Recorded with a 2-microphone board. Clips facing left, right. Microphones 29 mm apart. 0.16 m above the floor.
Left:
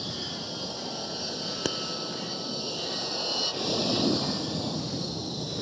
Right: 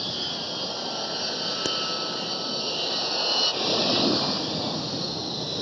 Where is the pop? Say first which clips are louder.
Right 2 dB; 5° left (ahead or behind).